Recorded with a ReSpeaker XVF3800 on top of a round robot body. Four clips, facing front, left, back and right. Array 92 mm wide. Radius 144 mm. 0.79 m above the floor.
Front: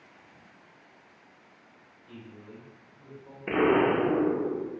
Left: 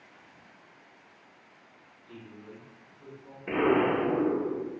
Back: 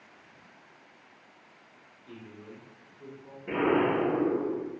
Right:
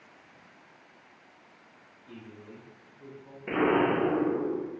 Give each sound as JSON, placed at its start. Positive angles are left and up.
{"t": 2.1, "sound": "a man speaking", "azimuth_deg": -175, "distance_m": 1.6}
{"t": 3.5, "sound": "an explosion", "azimuth_deg": -5, "distance_m": 1.1}